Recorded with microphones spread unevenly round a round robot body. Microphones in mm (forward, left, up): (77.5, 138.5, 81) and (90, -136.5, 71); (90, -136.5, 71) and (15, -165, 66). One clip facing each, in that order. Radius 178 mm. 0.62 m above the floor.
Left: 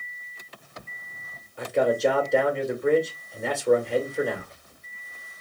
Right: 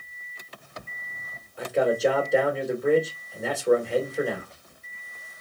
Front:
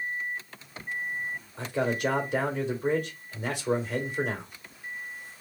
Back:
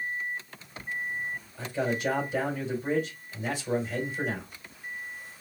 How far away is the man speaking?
About 2.5 m.